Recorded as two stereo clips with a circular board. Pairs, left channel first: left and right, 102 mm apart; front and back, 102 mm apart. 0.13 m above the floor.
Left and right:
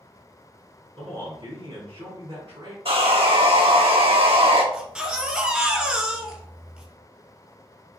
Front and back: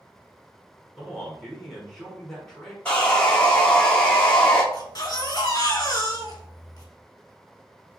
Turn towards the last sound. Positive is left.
turn(degrees=-15)